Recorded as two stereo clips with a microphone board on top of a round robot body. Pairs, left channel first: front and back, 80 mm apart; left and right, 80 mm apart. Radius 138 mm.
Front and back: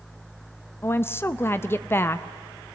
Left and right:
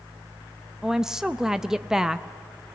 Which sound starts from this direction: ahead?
A woman speaking, at 0.8 s.